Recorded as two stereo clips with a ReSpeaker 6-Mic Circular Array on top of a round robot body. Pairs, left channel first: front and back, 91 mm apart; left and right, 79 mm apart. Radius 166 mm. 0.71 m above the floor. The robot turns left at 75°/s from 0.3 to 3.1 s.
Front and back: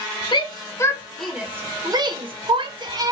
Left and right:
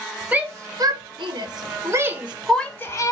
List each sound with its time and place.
0.3 s a shout: 20° right, 1.1 m; by 3.1 s 130° left, 1.1 m